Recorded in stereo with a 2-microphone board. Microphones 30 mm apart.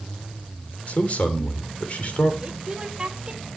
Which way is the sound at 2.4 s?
20° right (ahead or behind).